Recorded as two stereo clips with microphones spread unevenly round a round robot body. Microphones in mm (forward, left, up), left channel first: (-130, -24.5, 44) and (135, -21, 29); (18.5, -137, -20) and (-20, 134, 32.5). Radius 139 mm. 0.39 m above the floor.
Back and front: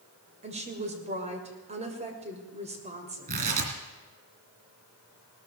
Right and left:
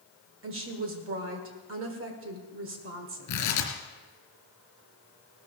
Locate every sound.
0.4 s a woman speaking: 60° left, 2 m
3.3 s tearing paper: 55° right, 2.5 m